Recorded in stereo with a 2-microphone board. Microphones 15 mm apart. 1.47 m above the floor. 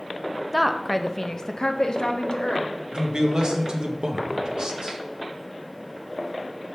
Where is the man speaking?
65° right (ahead or behind), 1.2 m.